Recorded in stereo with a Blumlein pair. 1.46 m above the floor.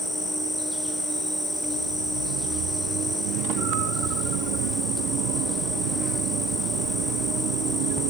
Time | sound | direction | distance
0.0 | an insect | straight ahead | 1.1 m